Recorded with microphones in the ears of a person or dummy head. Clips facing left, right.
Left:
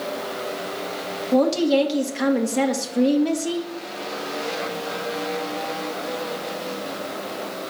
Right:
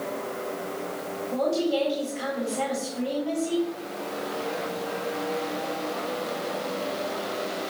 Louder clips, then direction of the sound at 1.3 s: Left 7 dB; 75° left (ahead or behind).